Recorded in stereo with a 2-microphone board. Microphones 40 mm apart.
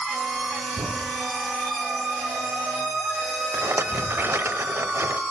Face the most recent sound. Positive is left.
turn(degrees=-75)  # may be behind; listen again after turning